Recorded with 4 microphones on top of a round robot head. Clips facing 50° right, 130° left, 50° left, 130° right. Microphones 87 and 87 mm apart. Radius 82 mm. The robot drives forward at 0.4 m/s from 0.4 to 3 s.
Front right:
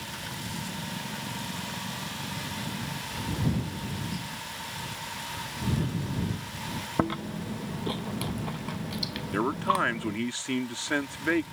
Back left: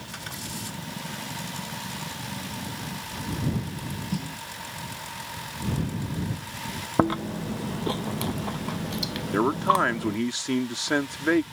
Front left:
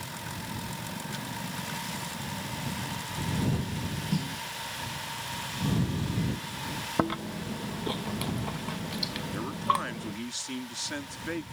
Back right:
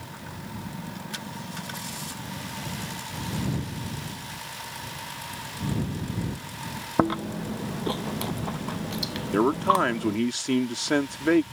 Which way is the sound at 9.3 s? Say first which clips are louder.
Back left 4 dB, back right 8 dB; 160° right.